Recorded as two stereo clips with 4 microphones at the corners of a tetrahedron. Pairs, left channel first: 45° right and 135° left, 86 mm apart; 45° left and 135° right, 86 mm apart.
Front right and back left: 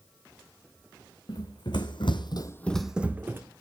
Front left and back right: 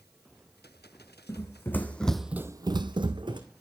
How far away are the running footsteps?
About 1.8 m.